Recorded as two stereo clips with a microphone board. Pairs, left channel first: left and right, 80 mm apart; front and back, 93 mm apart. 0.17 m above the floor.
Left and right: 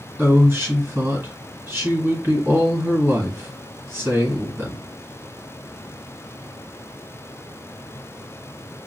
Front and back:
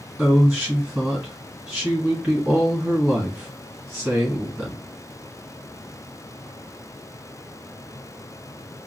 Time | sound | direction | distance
0.2 | a woman speaking | 100° right | 1.7 m